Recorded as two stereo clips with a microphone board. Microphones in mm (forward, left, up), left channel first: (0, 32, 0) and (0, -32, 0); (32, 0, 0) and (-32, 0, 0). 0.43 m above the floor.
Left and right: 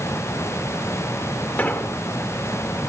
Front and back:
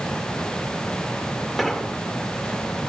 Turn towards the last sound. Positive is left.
turn(degrees=85)